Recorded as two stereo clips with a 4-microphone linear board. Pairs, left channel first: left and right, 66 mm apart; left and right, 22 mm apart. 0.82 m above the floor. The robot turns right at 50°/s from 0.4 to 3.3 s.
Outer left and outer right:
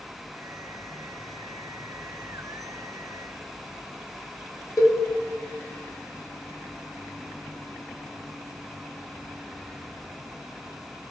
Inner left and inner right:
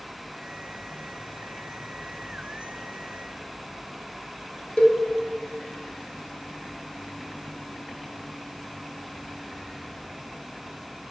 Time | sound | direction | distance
4.8 | a cowbell | 55° left (ahead or behind) | 0.6 m